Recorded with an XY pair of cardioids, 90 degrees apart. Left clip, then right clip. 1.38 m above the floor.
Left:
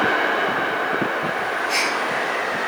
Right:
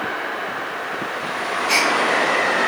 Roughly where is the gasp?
Right.